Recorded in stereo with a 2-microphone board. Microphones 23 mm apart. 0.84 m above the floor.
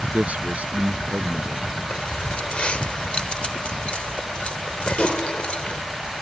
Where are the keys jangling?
50° left (ahead or behind).